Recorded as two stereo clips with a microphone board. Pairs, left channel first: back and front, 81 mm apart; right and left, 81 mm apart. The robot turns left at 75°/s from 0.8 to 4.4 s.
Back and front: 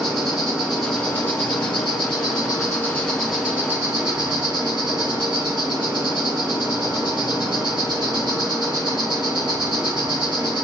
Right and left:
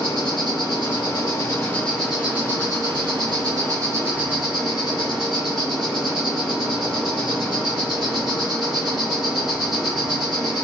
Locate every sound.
0.0 s an insect: 85° right, 1.1 m; by 10.6 s 5° left, 1.1 m